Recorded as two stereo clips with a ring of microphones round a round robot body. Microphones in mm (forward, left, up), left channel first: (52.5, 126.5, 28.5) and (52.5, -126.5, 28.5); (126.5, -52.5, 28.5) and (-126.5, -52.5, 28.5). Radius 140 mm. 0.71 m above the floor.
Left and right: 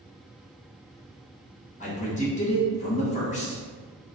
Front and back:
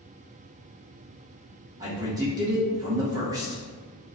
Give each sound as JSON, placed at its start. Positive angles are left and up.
{"t": 1.8, "sound": "a man speaking", "azimuth_deg": 120, "distance_m": 0.9}